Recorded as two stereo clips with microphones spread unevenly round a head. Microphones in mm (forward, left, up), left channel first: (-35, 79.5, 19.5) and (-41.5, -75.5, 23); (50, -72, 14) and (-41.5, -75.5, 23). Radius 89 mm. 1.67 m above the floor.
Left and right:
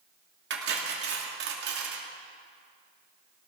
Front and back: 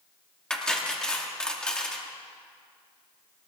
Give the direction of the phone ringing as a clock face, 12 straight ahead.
I don't hear a phone ringing.